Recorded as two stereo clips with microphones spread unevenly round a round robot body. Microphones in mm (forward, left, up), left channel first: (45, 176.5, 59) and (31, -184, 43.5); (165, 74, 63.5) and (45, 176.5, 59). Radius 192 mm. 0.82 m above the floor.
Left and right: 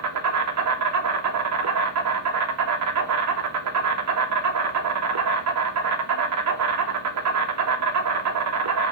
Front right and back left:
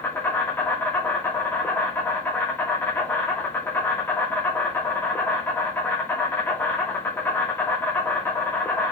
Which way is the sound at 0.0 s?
115° right.